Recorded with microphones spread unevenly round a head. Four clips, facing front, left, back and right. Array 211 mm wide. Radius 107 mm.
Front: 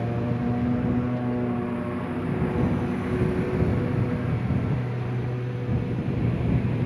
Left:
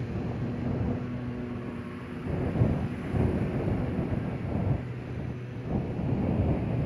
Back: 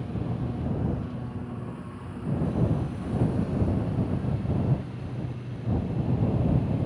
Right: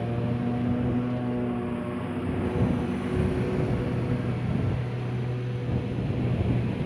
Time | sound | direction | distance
0.0 | a lawn mower | 25° right | ?